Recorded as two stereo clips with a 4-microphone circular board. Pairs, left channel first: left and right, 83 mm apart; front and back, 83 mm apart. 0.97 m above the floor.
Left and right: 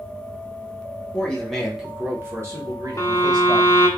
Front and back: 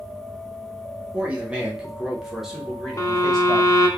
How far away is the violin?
About 0.6 m.